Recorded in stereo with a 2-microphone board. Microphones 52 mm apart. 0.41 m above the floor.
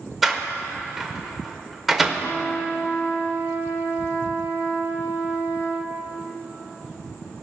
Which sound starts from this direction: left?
A trumpet, at 2.2 s.